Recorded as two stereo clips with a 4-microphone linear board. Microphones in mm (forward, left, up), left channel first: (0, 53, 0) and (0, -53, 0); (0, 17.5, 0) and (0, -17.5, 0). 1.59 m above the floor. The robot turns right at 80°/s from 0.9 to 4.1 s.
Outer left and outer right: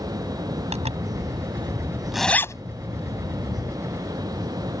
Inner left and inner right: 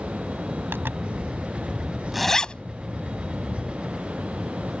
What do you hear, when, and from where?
0.7 s a zipper: 80° right; by 3.7 s 55° left (ahead or behind)